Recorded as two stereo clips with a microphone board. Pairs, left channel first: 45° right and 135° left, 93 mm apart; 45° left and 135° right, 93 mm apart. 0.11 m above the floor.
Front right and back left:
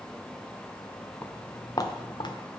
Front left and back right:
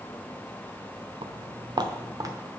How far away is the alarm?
No alarm in this recording.